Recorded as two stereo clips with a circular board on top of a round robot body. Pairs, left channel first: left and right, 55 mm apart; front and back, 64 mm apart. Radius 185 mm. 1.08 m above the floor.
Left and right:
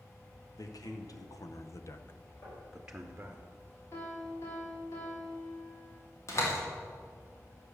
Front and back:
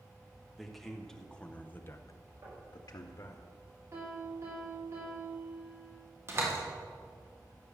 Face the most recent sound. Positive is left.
turn(degrees=130)